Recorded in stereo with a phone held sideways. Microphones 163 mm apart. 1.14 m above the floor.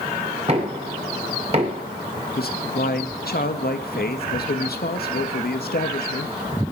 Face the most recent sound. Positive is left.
turn(degrees=70)  # may be behind; listen again after turning